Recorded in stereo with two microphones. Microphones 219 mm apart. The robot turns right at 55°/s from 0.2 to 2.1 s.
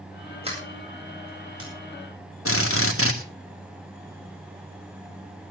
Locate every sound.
0.4 s a sliding door: 25° right (ahead or behind), 8.5 m; by 1.7 s 85° right, 8.5 m
2.5 s a drill: 85° left, 2.5 m